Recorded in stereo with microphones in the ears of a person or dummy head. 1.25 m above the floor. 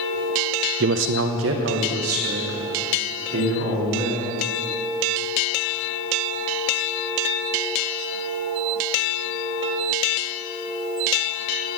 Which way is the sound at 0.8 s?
55° right (ahead or behind).